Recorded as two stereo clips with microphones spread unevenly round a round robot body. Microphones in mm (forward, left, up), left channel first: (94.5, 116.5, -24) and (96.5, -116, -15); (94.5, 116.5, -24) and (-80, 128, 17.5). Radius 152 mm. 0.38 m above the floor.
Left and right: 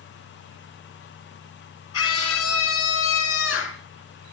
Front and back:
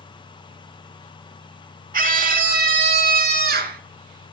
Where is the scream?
135° left, 3.5 m; by 3.8 s 140° left, 4 m.